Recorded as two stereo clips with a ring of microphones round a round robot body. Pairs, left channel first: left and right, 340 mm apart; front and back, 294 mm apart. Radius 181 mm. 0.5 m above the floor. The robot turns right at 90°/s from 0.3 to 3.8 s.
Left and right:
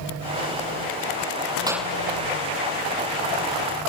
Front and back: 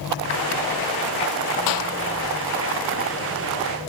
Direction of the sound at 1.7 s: 10° right.